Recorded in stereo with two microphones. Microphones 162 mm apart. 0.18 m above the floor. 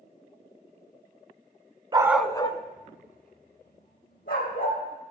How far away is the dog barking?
About 0.7 m.